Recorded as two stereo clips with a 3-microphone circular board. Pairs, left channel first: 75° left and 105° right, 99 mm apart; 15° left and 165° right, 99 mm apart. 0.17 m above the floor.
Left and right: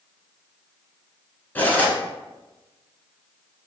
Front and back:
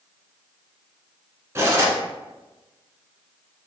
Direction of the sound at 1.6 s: 145° left.